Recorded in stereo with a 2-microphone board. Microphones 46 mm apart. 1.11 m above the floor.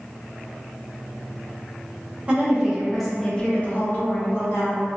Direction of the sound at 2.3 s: 25° right (ahead or behind).